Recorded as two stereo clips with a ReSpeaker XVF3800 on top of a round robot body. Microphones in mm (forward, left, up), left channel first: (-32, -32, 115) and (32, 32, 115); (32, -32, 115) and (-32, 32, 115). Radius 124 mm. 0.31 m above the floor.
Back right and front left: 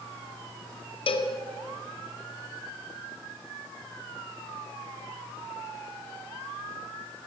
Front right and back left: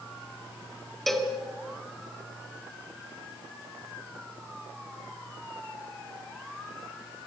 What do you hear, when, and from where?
1.1 s a cowbell: 135° right, 2.5 m